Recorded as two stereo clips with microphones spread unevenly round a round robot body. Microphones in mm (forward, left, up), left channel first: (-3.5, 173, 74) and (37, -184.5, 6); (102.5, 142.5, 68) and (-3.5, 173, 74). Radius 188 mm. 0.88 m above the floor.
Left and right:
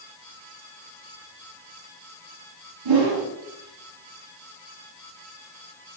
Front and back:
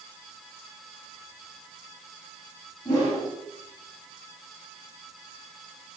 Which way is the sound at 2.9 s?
80° right.